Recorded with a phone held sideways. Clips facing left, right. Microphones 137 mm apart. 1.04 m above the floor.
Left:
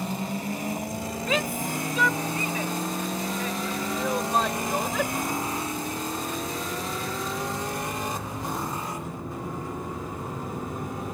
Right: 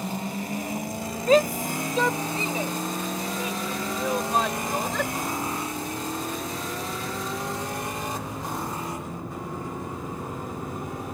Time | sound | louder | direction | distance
1.3 | a shout | right 9 dB | 45° right (ahead or behind) | ?